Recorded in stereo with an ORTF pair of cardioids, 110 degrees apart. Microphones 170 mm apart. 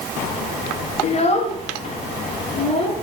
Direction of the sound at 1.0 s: 40° left.